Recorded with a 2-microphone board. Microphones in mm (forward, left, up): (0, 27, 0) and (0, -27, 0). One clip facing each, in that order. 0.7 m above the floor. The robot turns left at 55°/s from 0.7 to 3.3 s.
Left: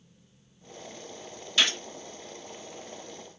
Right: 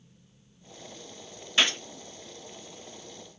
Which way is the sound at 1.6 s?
25° right (ahead or behind).